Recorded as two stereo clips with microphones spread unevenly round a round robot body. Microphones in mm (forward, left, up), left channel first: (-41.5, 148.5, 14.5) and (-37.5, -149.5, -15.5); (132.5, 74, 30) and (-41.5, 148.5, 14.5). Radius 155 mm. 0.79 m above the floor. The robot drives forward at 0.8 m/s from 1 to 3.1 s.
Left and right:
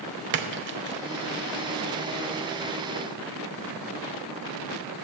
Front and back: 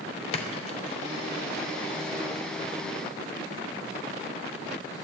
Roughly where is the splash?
Right.